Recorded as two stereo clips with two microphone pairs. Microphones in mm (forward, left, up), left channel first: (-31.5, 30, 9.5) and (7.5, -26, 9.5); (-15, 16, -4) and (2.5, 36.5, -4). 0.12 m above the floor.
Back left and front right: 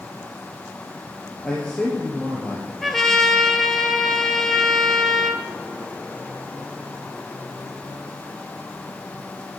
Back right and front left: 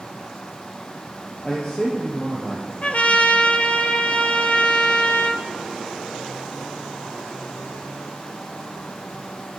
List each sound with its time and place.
1.4 s a man speaking: 160° right, 3 m
2.8 s a trumpet: 150° right, 1.1 m